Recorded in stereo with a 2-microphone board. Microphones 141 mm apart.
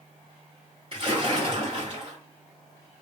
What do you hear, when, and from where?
0.9 s a splash: 40° right (ahead or behind), 2 m